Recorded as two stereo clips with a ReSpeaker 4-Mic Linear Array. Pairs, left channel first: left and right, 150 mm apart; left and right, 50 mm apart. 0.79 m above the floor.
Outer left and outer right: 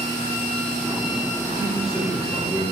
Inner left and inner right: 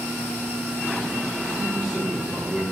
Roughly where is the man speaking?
Centre.